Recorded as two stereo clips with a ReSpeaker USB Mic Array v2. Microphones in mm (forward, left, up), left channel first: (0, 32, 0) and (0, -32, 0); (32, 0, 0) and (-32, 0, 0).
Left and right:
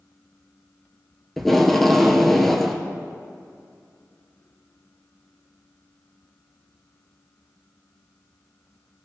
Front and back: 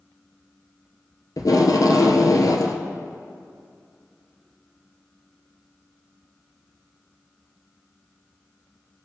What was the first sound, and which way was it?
Tape being pulled, 5° left.